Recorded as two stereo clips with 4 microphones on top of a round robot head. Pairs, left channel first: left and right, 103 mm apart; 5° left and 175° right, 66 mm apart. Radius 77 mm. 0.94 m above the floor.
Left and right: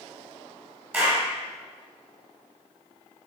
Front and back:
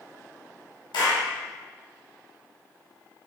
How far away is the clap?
About 5 m.